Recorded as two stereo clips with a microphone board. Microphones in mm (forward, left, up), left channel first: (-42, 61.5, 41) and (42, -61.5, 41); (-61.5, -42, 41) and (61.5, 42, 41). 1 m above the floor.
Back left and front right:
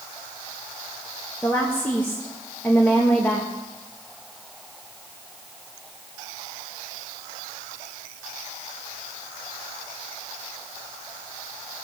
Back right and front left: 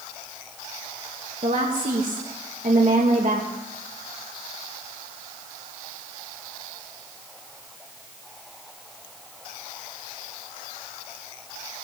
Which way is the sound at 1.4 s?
50° left.